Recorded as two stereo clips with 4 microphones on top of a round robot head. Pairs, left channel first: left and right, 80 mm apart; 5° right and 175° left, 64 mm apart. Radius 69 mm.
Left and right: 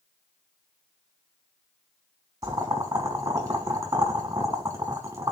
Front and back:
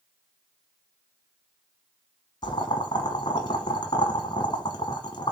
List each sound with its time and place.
2.4 s boiling: 35° right, 1.1 m